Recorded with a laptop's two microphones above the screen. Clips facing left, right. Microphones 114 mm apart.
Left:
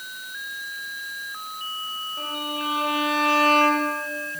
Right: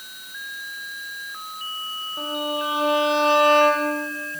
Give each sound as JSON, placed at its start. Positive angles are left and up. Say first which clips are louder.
{"t": 2.2, "sound": "a violin", "louder": "right 5 dB", "side_deg": -25, "distance_m": 1.4}